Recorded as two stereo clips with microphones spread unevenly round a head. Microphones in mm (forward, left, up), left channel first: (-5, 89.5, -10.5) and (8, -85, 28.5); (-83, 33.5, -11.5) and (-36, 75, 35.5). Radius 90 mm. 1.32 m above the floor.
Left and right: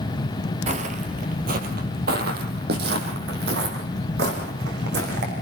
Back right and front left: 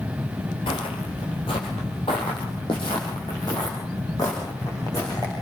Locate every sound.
0.7 s footsteps: 80° right, 1.8 m; by 5.3 s 60° right, 6 m